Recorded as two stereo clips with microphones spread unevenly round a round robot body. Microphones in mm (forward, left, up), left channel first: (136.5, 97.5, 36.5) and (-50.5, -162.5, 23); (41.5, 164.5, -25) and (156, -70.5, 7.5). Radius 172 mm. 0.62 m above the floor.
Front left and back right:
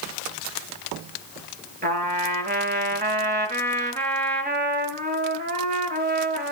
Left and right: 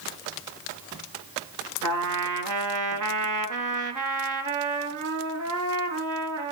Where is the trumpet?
60° right, 3 m.